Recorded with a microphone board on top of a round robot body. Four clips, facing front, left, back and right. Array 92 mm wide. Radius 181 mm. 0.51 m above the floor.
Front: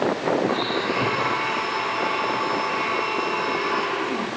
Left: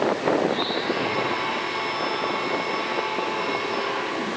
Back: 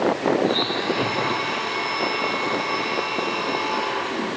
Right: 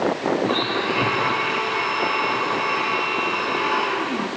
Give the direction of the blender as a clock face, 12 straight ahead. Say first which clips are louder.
Right 2 dB, back 1 dB; 2 o'clock.